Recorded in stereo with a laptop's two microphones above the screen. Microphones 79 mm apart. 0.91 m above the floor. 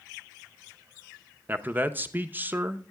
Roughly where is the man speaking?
Right.